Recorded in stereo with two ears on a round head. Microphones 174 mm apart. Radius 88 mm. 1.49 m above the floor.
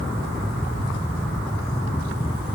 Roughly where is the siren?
No siren in this recording.